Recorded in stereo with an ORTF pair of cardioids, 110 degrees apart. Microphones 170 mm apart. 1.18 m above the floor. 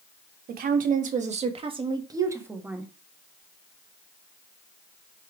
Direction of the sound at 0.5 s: 60° right.